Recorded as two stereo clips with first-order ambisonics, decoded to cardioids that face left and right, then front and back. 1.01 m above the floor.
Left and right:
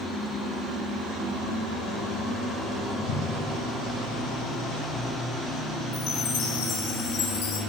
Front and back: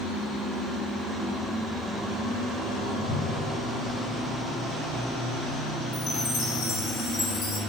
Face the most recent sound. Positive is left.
turn(degrees=60)